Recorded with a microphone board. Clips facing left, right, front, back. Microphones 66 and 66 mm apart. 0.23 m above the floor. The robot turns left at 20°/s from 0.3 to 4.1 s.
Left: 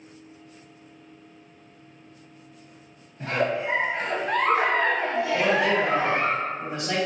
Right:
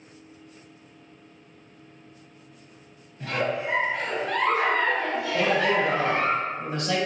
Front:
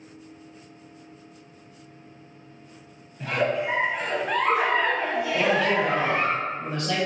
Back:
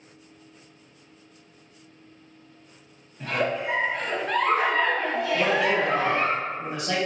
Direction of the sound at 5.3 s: 125° left.